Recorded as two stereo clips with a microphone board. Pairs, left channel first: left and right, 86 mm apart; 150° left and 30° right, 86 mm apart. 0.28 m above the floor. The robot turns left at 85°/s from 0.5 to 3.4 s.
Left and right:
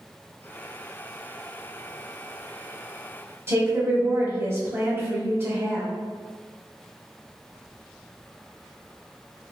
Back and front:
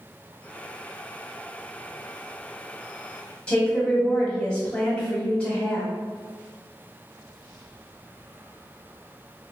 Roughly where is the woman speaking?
Behind right.